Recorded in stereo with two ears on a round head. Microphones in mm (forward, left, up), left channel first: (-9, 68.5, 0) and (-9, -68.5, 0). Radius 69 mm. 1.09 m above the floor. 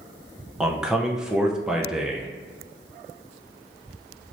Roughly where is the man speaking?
Centre.